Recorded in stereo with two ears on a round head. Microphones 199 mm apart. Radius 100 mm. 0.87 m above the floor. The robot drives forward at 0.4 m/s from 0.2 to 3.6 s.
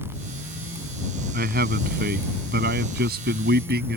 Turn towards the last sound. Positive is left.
turn(degrees=-45)  # may be behind; listen again after turning